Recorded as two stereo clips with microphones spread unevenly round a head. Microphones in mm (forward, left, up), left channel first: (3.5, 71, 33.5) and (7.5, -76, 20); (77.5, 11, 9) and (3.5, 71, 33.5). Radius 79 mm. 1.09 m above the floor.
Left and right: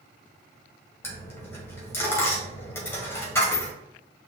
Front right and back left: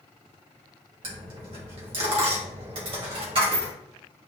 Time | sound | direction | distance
1.0 | a dropped coin | 160° left | 1.6 m